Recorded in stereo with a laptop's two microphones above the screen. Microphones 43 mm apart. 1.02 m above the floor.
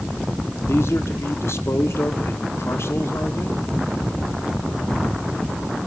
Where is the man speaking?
70° left (ahead or behind), 2.5 m.